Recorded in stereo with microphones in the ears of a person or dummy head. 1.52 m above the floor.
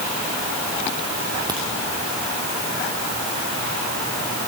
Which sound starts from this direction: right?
A crack, at 1.5 s.